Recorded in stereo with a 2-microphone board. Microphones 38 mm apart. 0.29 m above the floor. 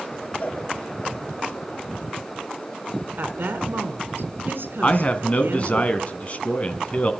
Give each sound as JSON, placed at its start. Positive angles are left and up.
{"t": 0.4, "sound": "a cowbell", "side_deg": 35, "distance_m": 4.5}
{"t": 3.2, "sound": "a woman speaking", "side_deg": -70, "distance_m": 3.0}
{"t": 4.8, "sound": "a man speaking", "side_deg": 35, "distance_m": 2.0}